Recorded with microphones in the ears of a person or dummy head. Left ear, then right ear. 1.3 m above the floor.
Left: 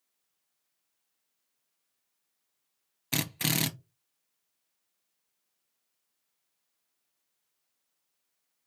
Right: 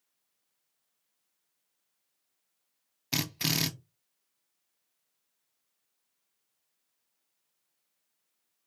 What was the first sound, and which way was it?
A drill, 5° left (ahead or behind).